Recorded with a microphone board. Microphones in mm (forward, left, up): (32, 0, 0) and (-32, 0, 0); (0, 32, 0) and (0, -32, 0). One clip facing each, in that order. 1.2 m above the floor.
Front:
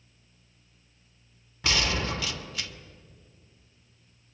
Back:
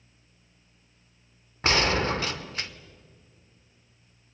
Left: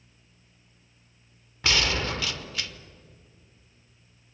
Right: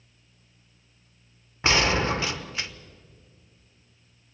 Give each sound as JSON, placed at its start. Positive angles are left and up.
{"t": 1.6, "sound": "a gunshot", "azimuth_deg": -145, "distance_m": 1.1}